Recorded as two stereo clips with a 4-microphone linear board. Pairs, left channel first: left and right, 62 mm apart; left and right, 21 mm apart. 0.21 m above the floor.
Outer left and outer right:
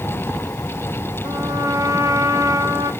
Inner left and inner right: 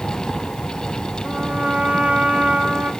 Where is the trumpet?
75° right (ahead or behind), 3.5 m.